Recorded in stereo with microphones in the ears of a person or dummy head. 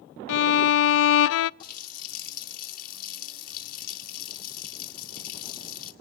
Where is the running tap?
50° left (ahead or behind), 1.8 m.